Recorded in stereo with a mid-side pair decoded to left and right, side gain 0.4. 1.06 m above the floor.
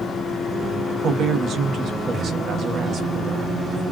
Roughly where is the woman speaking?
Right.